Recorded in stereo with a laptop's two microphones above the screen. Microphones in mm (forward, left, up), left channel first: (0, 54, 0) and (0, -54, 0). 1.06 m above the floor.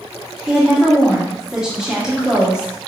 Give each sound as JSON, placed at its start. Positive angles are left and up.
{"t": 0.5, "sound": "a woman speaking", "side_deg": -5, "distance_m": 0.7}